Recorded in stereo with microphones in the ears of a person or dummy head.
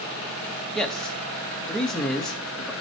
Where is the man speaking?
5° left (ahead or behind), 2 m.